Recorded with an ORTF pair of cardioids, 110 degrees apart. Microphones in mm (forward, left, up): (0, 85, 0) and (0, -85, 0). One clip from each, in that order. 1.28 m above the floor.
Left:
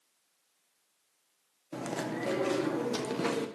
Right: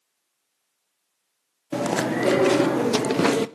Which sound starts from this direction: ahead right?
Chewing, at 1.7 s.